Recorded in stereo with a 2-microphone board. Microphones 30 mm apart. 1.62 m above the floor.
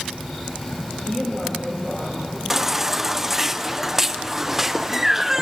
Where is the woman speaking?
15° left (ahead or behind), 8.5 m; by 2.4 s 10° left (ahead or behind), 9.5 m.